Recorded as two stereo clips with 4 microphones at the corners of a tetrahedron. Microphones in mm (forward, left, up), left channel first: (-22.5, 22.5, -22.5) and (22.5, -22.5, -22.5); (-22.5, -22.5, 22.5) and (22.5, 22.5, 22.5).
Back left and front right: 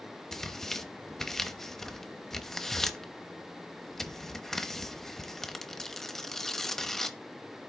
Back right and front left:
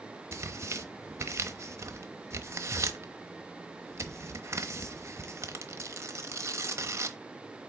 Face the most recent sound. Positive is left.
turn(degrees=55)